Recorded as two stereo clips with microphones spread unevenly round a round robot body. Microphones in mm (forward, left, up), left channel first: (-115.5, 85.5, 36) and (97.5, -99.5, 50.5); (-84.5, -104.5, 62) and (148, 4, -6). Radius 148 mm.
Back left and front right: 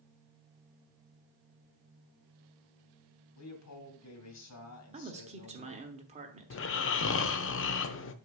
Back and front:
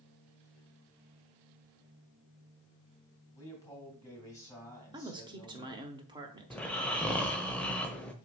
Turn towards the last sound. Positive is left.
turn(degrees=110)